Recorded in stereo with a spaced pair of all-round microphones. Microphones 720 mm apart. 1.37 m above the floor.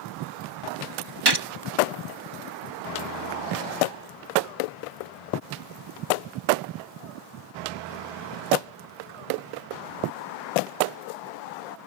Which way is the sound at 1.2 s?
35° right (ahead or behind).